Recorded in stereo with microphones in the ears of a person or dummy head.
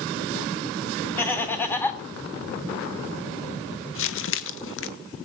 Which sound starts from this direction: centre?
Laughter, at 1.2 s.